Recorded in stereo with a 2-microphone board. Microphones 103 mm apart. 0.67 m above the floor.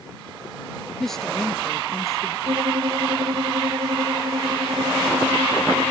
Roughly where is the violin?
Right.